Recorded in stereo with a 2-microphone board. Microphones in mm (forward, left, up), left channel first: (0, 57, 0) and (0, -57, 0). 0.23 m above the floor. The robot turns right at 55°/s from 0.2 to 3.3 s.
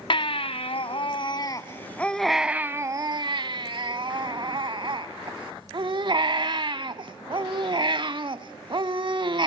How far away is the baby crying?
About 0.7 m.